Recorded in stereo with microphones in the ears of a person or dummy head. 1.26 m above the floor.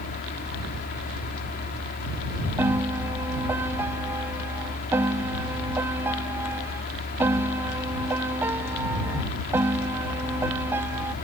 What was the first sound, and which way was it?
A fan, 45° left (ahead or behind).